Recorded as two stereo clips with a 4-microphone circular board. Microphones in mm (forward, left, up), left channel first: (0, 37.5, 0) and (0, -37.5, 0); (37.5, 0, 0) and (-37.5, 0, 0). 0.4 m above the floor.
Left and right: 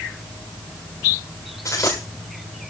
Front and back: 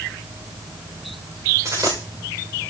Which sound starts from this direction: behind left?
A dropped coin, at 1.6 s.